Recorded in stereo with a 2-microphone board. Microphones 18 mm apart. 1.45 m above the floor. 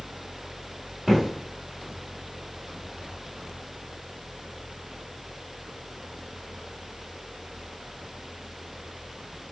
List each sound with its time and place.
1.1 s footsteps: 20° right (ahead or behind), 1.6 m